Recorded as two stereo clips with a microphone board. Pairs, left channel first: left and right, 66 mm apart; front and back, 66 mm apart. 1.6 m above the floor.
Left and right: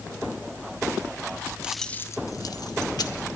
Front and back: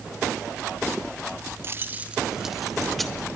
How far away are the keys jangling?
About 0.6 m.